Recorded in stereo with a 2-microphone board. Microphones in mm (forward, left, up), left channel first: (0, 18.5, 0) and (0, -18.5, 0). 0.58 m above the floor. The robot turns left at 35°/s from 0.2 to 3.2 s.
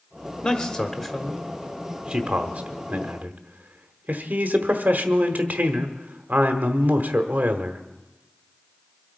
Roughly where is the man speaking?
Left.